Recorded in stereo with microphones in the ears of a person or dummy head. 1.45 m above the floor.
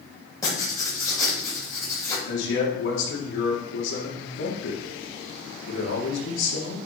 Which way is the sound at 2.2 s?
65° left (ahead or behind).